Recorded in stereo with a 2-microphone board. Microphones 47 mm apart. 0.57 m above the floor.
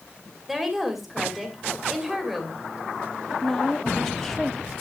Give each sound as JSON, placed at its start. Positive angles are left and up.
{"t": 0.5, "sound": "a woman speaking", "side_deg": -5, "distance_m": 2.5}
{"t": 3.3, "sound": "a woman speaking", "side_deg": 10, "distance_m": 0.8}